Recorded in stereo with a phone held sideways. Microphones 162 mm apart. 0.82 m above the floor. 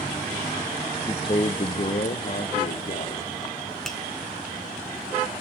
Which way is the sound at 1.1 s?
25° left (ahead or behind).